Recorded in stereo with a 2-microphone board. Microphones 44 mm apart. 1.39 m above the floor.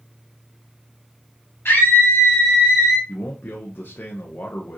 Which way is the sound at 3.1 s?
50° left (ahead or behind).